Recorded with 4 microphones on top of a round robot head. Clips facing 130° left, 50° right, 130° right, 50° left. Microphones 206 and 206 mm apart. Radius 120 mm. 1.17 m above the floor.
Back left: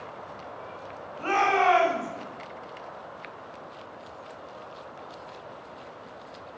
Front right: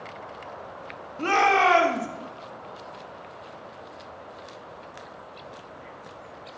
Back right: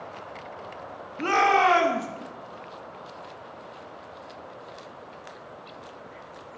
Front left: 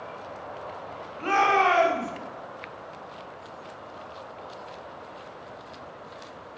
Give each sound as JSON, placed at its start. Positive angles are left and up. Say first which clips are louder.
{"t": 1.2, "sound": "a shout", "louder": "front right 2 dB, back right 1 dB", "azimuth_deg": -90, "distance_m": 1.9}